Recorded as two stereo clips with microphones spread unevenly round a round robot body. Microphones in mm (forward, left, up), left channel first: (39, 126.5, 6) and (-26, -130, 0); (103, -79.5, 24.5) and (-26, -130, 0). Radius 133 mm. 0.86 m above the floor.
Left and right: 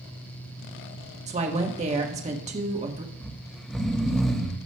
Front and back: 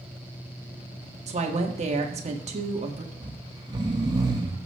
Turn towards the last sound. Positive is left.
turn(degrees=165)